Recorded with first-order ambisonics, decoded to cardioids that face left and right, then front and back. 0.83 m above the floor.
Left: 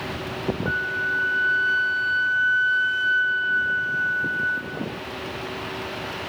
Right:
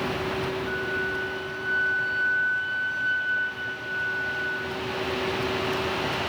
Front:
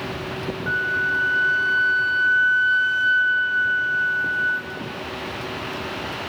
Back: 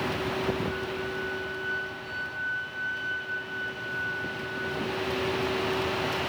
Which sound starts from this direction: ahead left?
A flute, at 0.7 s.